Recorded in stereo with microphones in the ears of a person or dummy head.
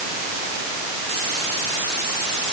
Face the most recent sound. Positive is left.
No sound to turn to.